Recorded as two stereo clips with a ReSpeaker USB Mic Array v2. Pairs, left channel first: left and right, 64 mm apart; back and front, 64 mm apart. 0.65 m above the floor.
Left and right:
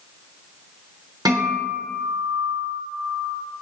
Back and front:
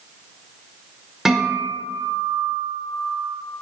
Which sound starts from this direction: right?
A guitar, at 1.2 s.